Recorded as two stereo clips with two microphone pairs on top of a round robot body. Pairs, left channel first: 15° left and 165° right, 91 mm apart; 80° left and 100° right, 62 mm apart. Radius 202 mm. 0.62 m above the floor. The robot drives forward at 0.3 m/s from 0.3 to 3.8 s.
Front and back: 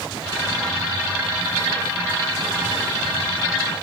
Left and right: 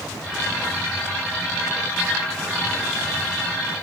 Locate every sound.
Only background noise.